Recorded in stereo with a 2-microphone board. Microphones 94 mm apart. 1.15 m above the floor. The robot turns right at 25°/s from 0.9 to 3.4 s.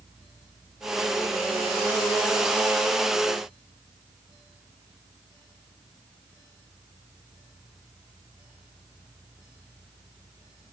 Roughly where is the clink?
No clink in this recording.